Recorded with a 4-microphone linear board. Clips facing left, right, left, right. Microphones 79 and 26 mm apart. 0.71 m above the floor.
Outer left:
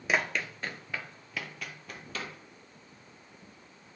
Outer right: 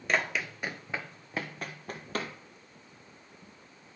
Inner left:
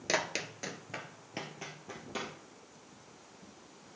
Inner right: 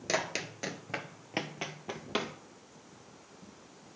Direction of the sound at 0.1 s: 5° left (ahead or behind).